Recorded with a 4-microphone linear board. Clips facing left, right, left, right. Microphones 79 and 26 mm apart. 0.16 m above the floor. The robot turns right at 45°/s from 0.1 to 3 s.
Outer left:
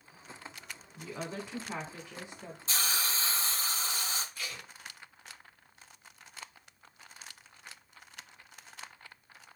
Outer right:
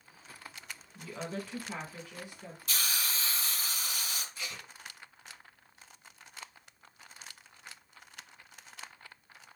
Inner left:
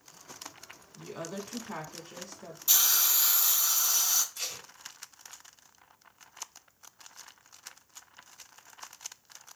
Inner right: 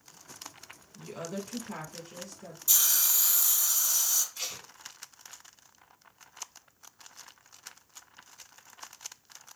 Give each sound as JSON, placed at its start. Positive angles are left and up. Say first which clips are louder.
{"t": 0.9, "sound": "a woman speaking", "louder": "even, inner right 1 dB", "side_deg": 10, "distance_m": 1.1}
{"t": 2.7, "sound": "a hiss", "louder": "outer left 2 dB, inner left 1 dB", "side_deg": 30, "distance_m": 0.5}
{"t": 4.3, "sound": "tape being pulled", "louder": "outer left 1 dB, even", "side_deg": -20, "distance_m": 1.6}